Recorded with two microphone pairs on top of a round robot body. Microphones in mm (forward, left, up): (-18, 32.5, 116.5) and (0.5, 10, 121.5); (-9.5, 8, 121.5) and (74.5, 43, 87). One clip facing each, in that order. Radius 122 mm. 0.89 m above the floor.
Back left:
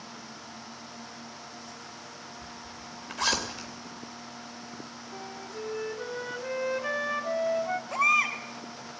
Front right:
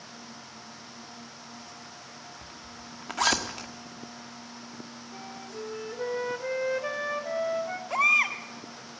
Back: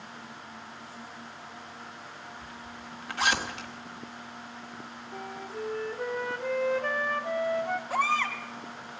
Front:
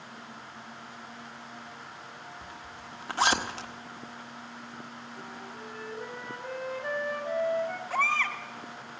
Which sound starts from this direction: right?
A baby crying, at 7.9 s.